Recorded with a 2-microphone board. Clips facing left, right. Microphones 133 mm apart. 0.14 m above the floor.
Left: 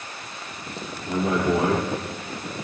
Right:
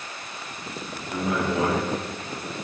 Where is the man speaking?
30° left (ahead or behind), 4 m.